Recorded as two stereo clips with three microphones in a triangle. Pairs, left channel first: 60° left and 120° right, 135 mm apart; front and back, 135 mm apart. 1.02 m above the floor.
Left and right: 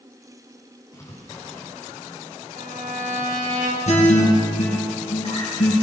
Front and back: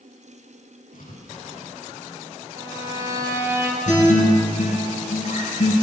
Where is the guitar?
25° left, 7 m.